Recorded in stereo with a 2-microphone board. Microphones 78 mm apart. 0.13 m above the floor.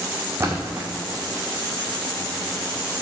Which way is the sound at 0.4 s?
30° right (ahead or behind).